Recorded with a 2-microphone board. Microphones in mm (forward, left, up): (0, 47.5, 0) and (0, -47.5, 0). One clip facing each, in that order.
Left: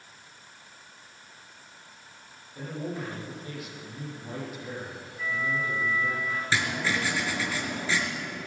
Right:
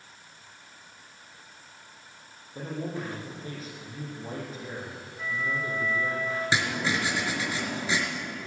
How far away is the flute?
About 3 m.